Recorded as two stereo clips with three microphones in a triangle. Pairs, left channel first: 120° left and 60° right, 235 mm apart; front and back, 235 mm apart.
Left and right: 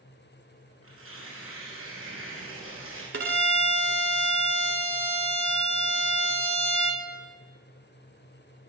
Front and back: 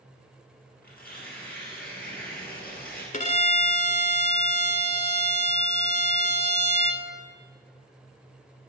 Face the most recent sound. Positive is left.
turn(degrees=-55)